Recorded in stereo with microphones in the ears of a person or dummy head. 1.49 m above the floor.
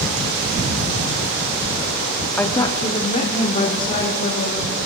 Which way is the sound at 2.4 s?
5° left (ahead or behind).